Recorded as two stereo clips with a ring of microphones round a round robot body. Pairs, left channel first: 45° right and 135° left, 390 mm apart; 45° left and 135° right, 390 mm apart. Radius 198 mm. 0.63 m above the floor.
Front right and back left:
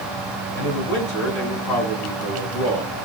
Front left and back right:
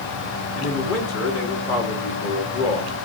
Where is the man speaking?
10° right, 6.5 m.